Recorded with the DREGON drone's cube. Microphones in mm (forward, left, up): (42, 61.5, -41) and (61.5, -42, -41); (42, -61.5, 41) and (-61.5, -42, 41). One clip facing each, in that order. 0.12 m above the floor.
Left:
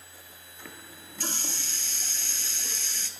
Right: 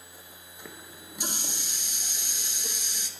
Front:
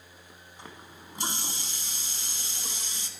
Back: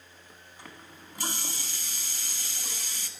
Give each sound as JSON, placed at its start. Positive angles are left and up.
{"t": 0.6, "sound": "a running tap", "azimuth_deg": -35, "distance_m": 0.8}